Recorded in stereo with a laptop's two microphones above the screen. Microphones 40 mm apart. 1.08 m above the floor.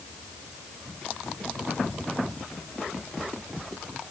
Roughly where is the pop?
No pop in this recording.